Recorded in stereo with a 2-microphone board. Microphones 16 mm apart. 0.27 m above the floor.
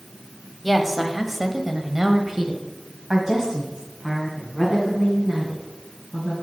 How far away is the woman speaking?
About 1.3 m.